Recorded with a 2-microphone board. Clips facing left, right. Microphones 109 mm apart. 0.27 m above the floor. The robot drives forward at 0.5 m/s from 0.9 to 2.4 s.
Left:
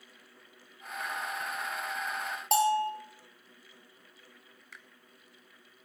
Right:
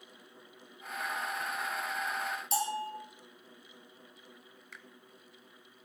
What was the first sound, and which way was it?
A bell, 85° left.